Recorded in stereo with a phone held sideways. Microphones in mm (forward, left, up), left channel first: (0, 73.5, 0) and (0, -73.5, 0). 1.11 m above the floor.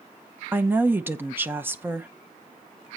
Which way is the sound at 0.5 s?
15° right (ahead or behind).